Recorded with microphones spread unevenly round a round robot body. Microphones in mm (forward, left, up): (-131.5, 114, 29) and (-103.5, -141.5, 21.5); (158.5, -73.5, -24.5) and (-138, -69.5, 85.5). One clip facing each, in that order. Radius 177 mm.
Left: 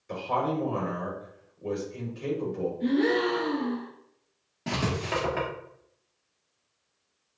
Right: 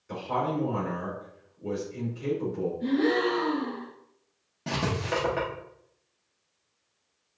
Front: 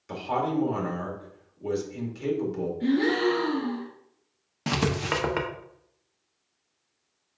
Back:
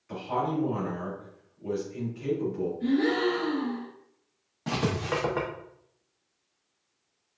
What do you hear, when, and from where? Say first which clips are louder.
0.1 s a man speaking: left 1 dB, front 2 dB; straight ahead, 1.9 m
2.8 s a gasp: left 1 dB, front 2 dB; 30° left, 2.5 m
4.7 s writing: even, front 2 dB; 10° left, 0.7 m